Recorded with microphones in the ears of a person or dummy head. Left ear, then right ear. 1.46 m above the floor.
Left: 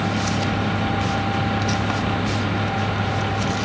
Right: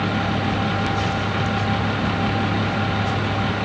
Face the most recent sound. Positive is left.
No sound to turn to.